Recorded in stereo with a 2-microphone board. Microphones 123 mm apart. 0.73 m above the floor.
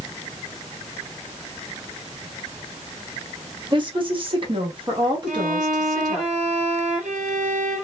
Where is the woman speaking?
40° right (ahead or behind), 1.0 m; by 6.3 s 25° right (ahead or behind), 1.3 m.